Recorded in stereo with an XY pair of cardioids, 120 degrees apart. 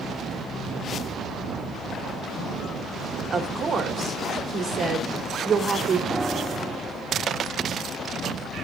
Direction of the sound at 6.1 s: Straight ahead.